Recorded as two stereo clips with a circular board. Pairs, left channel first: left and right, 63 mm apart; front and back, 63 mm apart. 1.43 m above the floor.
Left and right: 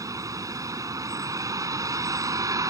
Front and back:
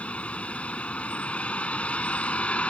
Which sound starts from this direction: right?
A vehicle, at 0.0 s.